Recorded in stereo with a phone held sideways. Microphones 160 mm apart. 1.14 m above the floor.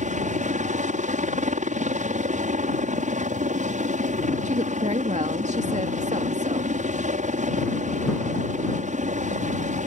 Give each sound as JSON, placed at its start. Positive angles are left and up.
{"t": 0.0, "sound": "a helicopter", "side_deg": -50}
{"t": 4.5, "sound": "a woman speaking", "side_deg": -45}